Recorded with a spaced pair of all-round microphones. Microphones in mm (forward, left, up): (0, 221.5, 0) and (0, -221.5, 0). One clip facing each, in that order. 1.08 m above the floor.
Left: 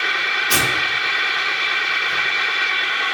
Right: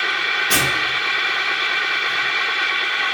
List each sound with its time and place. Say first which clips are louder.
0.5 s tearing paper: even; 5° left (ahead or behind), 1.6 m